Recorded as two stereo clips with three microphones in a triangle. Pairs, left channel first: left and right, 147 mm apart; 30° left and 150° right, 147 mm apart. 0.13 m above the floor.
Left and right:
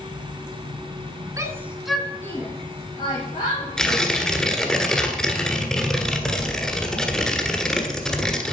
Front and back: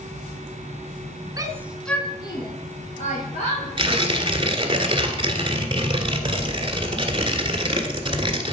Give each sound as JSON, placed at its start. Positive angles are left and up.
{"t": 1.4, "sound": "a shout", "azimuth_deg": -130, "distance_m": 1.2}
{"t": 3.8, "sound": "tearing paper", "azimuth_deg": 175, "distance_m": 1.5}